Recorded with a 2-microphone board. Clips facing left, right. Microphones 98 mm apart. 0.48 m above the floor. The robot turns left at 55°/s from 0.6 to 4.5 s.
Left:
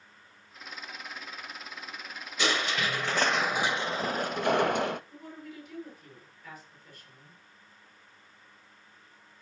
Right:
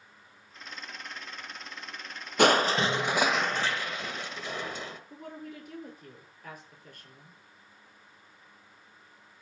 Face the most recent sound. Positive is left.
turn(degrees=-50)  # may be behind; listen again after turning